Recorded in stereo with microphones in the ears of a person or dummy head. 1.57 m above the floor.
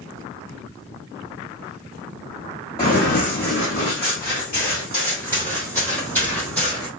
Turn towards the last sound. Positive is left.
turn(degrees=5)  # may be behind; listen again after turning